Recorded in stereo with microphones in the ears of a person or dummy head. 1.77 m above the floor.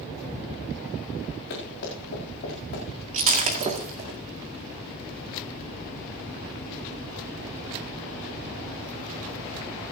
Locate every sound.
1.5 s running footsteps: 60° left (ahead or behind), 7.5 m; by 2.9 s 55° left (ahead or behind), 8 m
3.1 s breaking glass: 30° right (ahead or behind), 2 m